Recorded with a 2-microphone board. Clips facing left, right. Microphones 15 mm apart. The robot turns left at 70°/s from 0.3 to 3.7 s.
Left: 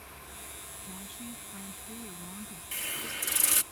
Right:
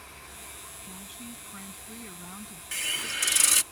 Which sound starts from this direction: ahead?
A woman speaking, at 0.8 s.